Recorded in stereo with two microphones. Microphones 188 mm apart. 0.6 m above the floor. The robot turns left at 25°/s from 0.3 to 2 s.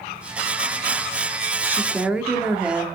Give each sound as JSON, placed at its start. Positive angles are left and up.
{"t": 1.6, "sound": "a woman speaking", "side_deg": -15, "distance_m": 1.4}